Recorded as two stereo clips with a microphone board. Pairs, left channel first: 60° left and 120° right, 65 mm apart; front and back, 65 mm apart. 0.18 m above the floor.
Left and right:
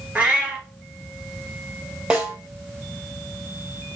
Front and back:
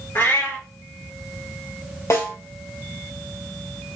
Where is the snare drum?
45° right, 1.8 m.